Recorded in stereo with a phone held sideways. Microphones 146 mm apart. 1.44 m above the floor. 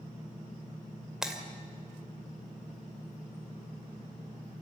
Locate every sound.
1.2 s breaking glass: 5° right (ahead or behind), 2 m